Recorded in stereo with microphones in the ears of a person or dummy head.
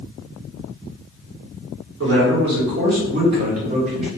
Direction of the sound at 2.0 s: 70° right (ahead or behind).